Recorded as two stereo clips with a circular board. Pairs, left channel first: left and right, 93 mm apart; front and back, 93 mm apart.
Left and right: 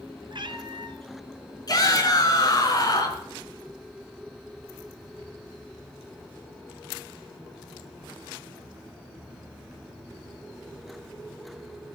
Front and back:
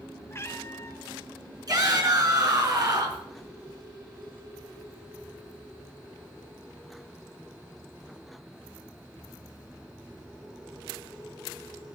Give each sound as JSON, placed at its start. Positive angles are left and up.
{"t": 0.3, "sound": "a cat meowing", "azimuth_deg": -60, "distance_m": 1.0}
{"t": 1.7, "sound": "a shout", "azimuth_deg": 135, "distance_m": 5.0}